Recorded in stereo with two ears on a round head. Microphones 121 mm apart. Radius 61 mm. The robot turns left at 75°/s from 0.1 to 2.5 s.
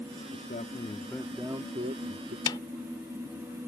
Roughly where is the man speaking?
Ahead left.